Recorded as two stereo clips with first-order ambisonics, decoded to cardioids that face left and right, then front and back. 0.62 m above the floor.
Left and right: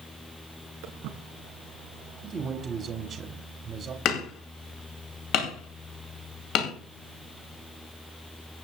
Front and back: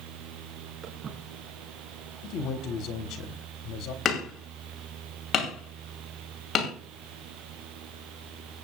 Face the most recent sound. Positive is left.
turn(degrees=60)